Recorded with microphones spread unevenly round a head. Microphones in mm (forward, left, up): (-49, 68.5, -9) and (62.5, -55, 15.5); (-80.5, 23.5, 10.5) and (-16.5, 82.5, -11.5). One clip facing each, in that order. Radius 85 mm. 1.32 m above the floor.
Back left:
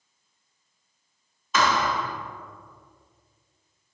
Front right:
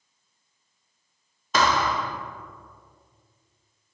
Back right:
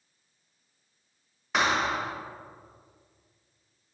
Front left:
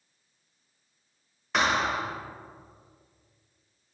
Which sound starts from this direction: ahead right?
A thud, at 1.5 s.